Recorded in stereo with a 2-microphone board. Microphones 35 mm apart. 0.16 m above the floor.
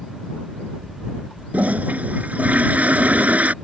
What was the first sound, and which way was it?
A toilet flushing, 50° right (ahead or behind).